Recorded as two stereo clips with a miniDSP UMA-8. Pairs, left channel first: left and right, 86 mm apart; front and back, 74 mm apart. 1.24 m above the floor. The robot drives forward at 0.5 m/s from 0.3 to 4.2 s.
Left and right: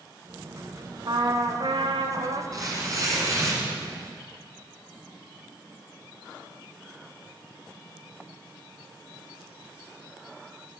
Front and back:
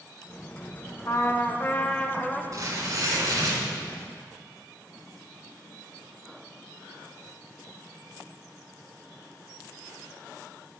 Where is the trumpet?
50° right, 1.2 m; by 2.4 s 85° right, 1.0 m.